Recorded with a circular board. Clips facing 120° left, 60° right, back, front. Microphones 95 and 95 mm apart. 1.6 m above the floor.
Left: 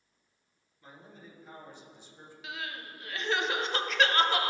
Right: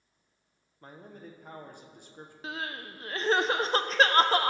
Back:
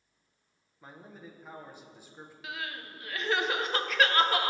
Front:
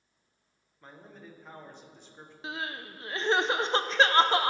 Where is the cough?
No cough in this recording.